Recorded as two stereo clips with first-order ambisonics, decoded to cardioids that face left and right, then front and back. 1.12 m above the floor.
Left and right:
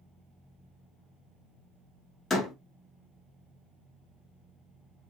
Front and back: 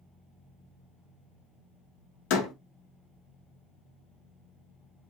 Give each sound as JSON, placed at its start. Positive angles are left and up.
{"t": 2.3, "sound": "a door slam", "azimuth_deg": 15, "distance_m": 1.1}